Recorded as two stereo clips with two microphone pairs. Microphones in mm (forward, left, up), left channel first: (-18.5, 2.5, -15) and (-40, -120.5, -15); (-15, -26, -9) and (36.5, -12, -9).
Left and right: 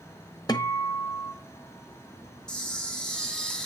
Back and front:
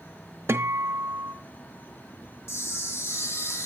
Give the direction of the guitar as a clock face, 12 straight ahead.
11 o'clock.